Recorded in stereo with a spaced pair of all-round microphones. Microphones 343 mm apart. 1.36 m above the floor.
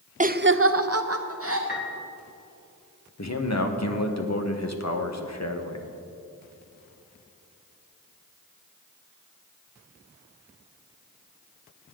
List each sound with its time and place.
0.2 s laughter: 20° right (ahead or behind), 0.6 m; by 1.6 s 40° right (ahead or behind), 1.0 m
1.7 s a piano: 30° left (ahead or behind), 1.8 m
3.2 s a man speaking: 50° left (ahead or behind), 1.3 m